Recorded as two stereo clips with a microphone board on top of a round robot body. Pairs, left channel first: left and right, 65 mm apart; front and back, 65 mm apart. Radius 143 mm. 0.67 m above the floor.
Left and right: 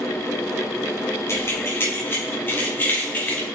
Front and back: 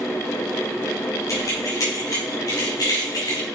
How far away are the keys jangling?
About 3.5 m.